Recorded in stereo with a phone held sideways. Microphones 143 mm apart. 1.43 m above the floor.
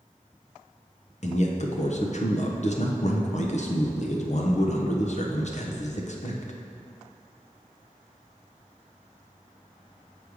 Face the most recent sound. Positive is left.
turn(degrees=55)  # may be behind; listen again after turning